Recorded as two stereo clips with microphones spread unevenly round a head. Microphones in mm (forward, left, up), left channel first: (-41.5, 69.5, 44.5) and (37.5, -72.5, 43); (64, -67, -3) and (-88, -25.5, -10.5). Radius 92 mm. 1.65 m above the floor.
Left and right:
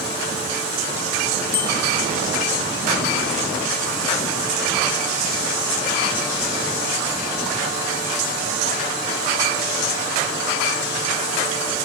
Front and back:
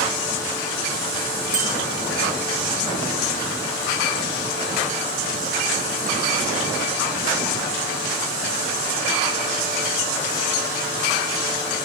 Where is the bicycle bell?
165° right, 6 m.